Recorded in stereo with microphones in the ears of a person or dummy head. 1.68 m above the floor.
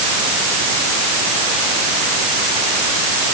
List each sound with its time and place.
Only background noise.